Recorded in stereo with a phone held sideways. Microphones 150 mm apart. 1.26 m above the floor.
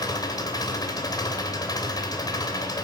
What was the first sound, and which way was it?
An engine running, 25° left (ahead or behind).